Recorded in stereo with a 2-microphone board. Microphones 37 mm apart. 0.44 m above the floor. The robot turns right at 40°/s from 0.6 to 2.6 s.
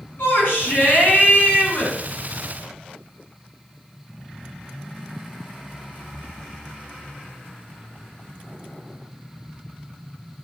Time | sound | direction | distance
0.2 | a shout | 95° left | 5 m